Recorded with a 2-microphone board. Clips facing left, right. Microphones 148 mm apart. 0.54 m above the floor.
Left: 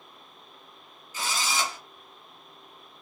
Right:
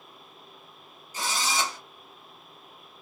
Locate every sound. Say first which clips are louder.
1.1 s a drill: right 1 dB; 40° right (ahead or behind), 1.3 m